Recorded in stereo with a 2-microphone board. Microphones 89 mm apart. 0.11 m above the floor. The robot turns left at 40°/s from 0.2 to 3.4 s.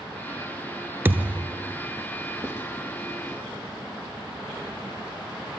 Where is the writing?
30° left (ahead or behind), 3.5 m; by 2.6 s 25° left (ahead or behind), 3.5 m.